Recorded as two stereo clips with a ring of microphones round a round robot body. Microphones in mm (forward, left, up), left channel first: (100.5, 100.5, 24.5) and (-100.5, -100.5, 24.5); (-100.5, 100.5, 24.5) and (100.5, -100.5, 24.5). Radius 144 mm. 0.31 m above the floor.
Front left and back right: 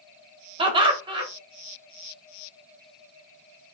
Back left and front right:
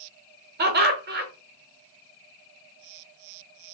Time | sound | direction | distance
0.6 | laughter | 70° right | 1.1 m